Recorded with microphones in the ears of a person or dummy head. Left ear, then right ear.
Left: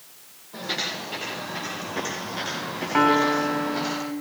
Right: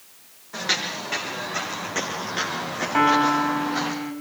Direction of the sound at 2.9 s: 20° right (ahead or behind).